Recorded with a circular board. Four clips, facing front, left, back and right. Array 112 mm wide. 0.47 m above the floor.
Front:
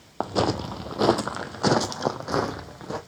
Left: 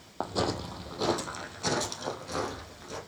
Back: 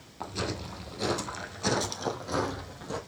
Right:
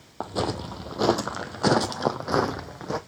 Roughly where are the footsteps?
Ahead.